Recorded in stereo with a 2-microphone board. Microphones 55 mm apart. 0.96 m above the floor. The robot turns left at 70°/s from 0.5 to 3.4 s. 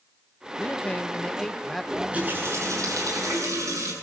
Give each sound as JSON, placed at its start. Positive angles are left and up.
{"t": 0.6, "sound": "a man speaking", "side_deg": 30, "distance_m": 0.7}
{"t": 1.9, "sound": "a running tap", "azimuth_deg": -10, "distance_m": 8.5}